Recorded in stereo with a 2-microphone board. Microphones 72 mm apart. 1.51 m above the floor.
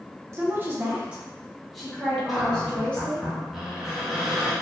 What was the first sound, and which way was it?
A woman speaking, 40° right (ahead or behind).